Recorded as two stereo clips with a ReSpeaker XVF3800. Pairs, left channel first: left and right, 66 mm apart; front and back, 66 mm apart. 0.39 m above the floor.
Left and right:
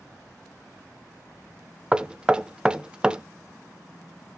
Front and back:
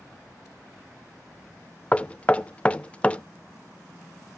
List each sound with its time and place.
1.9 s knocking: 35° right, 0.5 m